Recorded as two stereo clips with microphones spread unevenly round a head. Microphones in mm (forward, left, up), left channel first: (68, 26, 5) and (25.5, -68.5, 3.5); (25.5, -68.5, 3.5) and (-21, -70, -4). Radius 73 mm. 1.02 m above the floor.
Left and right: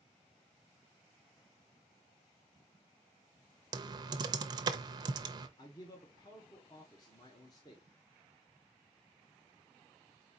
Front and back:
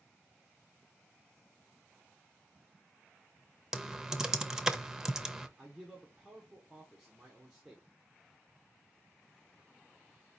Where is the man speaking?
110° left, 1.0 m.